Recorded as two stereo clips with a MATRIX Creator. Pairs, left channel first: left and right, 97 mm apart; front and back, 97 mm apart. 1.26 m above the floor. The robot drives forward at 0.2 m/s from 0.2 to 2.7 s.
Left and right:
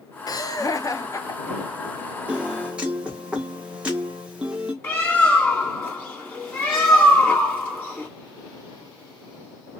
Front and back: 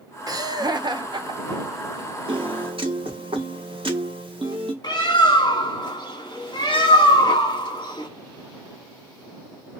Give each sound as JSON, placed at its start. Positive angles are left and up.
{"t": 0.3, "sound": "laughter", "azimuth_deg": 130, "distance_m": 0.5}
{"t": 2.3, "sound": "a piano", "azimuth_deg": -165, "distance_m": 0.7}
{"t": 4.8, "sound": "a bird", "azimuth_deg": 25, "distance_m": 1.1}